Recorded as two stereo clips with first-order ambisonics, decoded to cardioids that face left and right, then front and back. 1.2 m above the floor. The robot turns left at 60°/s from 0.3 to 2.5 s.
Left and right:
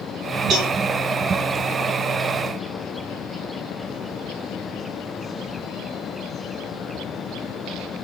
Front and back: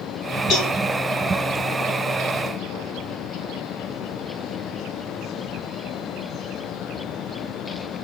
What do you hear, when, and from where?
0.5 s a cowbell: 45° right, 1.7 m; by 0.7 s 60° right, 1.7 m